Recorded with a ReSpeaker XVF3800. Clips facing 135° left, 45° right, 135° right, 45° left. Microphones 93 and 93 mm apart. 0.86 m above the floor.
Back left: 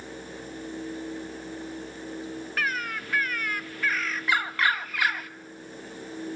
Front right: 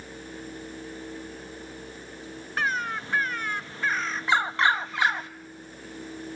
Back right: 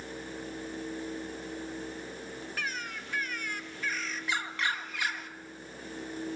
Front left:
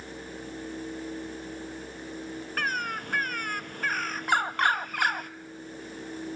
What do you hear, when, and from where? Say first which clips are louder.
2.6 s a bird: front right 3 dB, front left 9 dB; 15° left, 0.6 m